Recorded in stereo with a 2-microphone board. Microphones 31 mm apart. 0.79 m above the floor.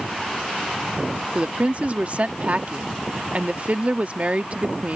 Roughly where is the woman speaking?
Right.